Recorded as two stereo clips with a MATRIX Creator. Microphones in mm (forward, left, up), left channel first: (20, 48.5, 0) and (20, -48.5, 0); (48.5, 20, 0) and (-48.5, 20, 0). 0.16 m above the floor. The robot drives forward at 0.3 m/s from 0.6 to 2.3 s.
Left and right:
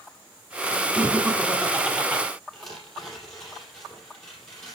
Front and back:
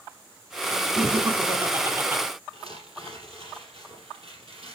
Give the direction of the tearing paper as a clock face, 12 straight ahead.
6 o'clock.